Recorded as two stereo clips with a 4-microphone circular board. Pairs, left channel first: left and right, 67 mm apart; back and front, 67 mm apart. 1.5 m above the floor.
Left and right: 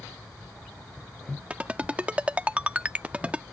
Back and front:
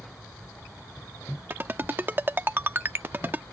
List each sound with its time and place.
1.5 s a ringtone: 35° right